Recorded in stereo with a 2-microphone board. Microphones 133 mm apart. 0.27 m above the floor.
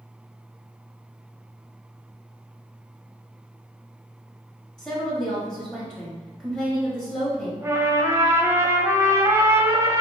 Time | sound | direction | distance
4.8 | a woman speaking | 5° left (ahead or behind) | 0.9 m
7.6 | a trumpet | 20° right (ahead or behind) | 0.6 m